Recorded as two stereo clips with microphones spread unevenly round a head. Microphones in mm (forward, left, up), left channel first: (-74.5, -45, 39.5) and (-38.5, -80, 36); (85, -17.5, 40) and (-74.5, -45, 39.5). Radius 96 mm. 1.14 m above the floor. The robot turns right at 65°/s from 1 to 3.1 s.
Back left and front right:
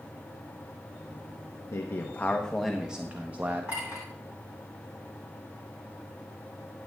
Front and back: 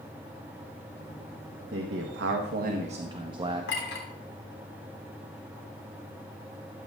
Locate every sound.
1.7 s a man speaking: 160° left, 1.2 m; by 3.7 s 105° right, 1.2 m
3.7 s a clink: 30° left, 3 m